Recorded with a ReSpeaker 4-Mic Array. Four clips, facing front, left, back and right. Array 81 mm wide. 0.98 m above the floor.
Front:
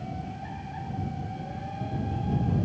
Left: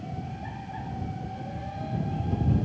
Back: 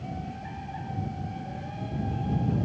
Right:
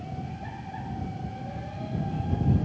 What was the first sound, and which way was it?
Only background noise.